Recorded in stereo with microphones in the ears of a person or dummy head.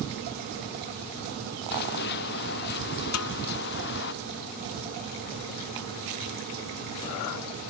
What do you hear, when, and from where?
1.7 s running footsteps: 55° left (ahead or behind); by 4.1 s 60° left (ahead or behind)
3.1 s a snare drum: 80° left